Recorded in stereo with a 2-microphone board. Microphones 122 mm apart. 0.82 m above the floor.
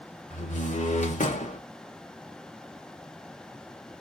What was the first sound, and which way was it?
A door slam, 85° left.